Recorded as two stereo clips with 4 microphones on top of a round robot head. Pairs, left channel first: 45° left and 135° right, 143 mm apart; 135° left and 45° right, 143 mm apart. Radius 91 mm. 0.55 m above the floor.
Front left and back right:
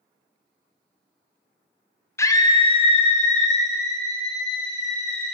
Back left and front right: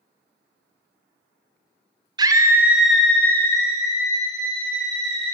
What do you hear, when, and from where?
2.2 s a scream: 10° right, 0.7 m; by 5.3 s 80° left, 1.8 m